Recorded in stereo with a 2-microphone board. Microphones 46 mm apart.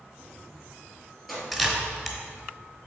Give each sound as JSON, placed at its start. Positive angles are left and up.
{"t": 0.2, "sound": "keys jangling", "side_deg": 0, "distance_m": 2.0}
{"t": 1.5, "sound": "a camera shutter", "side_deg": -5, "distance_m": 1.2}